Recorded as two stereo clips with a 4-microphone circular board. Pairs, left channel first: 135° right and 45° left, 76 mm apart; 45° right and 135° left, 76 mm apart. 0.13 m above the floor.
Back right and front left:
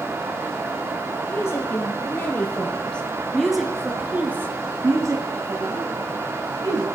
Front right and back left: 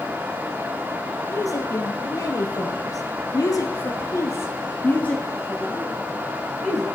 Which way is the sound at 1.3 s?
80° right.